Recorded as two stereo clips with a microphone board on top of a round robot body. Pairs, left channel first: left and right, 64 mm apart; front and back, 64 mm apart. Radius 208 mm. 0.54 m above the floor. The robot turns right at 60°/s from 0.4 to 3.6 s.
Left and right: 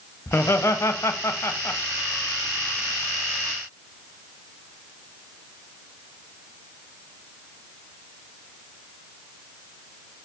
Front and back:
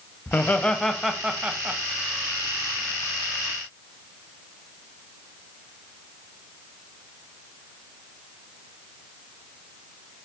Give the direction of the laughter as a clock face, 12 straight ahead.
10 o'clock.